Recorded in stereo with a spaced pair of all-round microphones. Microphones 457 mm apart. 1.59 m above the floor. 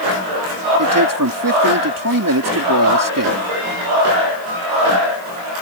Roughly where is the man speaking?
Right.